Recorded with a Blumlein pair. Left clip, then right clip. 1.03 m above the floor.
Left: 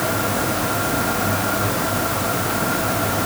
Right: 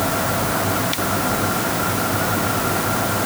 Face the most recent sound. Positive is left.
No sound to turn to.